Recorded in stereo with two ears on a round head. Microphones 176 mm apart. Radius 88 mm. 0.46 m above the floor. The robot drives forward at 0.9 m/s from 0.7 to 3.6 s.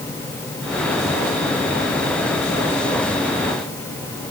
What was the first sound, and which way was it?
Only background noise.